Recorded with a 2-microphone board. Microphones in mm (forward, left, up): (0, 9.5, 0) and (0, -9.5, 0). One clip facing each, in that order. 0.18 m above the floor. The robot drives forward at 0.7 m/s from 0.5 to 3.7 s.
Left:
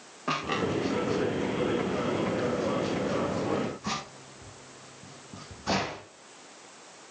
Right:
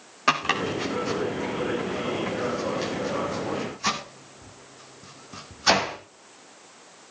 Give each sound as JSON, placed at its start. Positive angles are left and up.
{"t": 0.3, "sound": "chopping", "side_deg": -70, "distance_m": 4.5}